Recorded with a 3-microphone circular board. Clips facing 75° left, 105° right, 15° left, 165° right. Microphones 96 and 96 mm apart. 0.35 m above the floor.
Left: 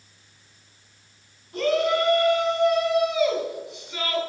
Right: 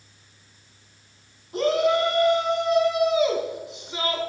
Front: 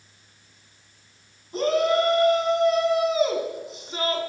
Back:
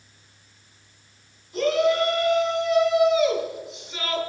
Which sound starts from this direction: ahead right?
A shout, at 1.5 s.